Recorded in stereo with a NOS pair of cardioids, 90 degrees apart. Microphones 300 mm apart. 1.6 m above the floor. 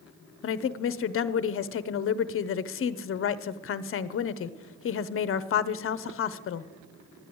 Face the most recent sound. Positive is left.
turn(degrees=45)